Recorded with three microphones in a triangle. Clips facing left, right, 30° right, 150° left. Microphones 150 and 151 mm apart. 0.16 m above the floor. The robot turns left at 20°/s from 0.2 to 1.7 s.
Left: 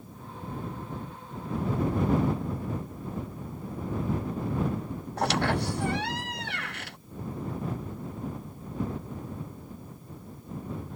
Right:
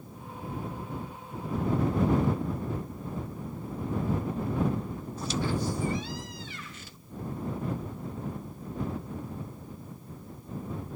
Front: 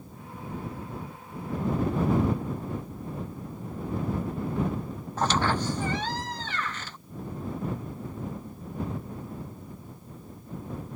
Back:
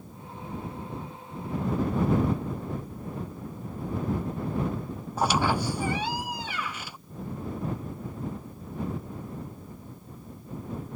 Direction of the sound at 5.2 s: 70° left.